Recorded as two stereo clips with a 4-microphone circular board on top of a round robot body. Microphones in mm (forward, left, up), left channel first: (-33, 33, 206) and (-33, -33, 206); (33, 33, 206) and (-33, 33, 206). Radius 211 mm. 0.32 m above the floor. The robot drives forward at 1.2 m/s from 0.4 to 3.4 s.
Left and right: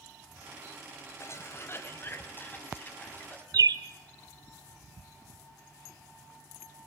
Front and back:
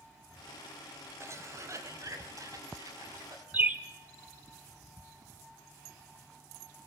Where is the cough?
135° left, 3.5 m; by 3.4 s 155° left, 5.5 m.